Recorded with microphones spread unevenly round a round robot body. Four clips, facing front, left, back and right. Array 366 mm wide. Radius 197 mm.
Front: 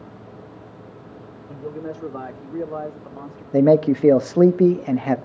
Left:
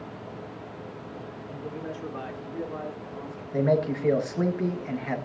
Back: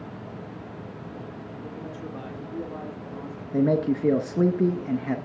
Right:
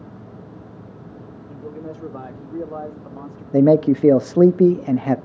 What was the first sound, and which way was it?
A man speaking, straight ahead.